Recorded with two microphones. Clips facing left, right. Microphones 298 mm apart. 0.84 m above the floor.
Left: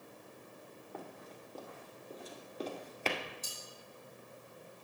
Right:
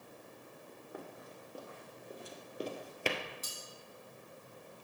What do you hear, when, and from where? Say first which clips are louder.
0.9 s running footsteps: even; 10° right (ahead or behind), 2.0 m; by 3.2 s 15° right (ahead or behind), 1.0 m
3.4 s cutlery clinking: even; 85° right, 3.5 m